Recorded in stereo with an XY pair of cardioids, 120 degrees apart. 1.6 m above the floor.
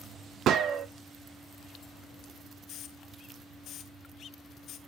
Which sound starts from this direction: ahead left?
A hiss, at 2.7 s.